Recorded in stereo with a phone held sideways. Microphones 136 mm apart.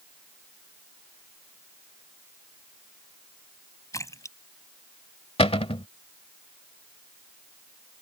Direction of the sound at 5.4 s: 45° left (ahead or behind).